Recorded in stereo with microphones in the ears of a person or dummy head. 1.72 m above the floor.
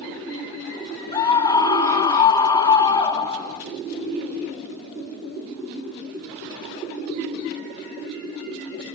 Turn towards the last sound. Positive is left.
turn(degrees=25)  # may be behind; listen again after turning